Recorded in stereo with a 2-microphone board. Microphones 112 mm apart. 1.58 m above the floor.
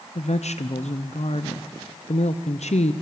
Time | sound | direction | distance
0.1 | a woman speaking | 85° left | 0.7 m